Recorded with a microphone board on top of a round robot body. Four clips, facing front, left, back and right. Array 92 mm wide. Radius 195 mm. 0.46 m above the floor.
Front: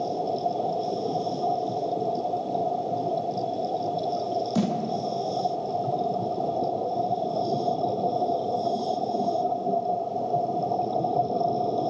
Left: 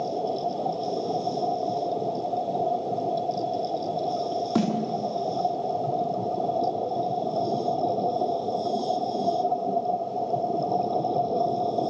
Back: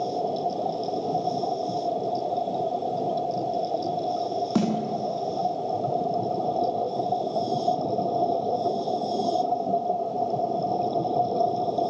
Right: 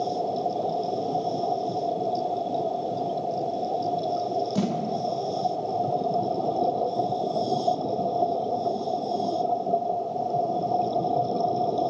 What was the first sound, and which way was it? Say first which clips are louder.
A snare drum: left 6 dB, back 3 dB; 140° left.